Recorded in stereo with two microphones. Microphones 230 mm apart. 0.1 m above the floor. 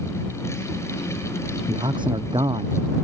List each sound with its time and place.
1.7 s a man speaking: 20° right (ahead or behind)